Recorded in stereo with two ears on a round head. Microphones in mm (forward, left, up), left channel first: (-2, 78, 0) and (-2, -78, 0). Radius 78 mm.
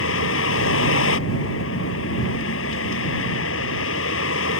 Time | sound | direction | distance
0.0 | a vehicle | 85° left | ?